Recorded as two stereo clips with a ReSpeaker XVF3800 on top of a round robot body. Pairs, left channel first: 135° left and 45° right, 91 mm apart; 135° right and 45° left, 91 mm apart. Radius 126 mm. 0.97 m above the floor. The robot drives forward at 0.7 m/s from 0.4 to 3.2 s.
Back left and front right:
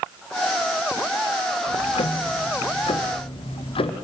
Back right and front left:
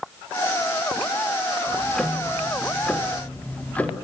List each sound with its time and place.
1.7 s ticking: 135° left, 1.9 m; by 4.0 s 150° left, 2.5 m